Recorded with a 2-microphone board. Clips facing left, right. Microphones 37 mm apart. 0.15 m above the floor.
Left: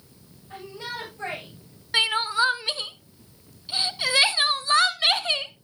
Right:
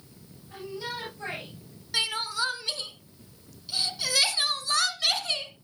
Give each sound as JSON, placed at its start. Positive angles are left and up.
{"t": 0.5, "sound": "a shout", "side_deg": 45, "distance_m": 8.5}
{"t": 1.9, "sound": "crying", "side_deg": 35, "distance_m": 0.8}